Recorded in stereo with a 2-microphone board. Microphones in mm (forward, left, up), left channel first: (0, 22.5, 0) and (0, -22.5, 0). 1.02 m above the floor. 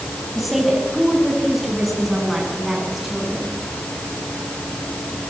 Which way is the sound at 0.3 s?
Centre (ahead or behind).